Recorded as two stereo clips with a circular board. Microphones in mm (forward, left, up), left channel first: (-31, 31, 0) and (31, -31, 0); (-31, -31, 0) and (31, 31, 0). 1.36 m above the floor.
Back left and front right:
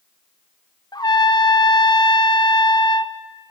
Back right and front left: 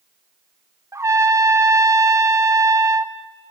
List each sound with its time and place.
0.9 s a trumpet: 100° left, 1.3 m